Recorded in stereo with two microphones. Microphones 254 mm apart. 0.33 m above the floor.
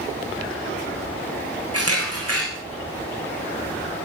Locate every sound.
1.7 s a camera shutter: 75° right (ahead or behind), 8.5 m